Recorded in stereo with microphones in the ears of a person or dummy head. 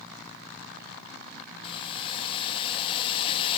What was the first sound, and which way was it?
Boiling, 25° left (ahead or behind).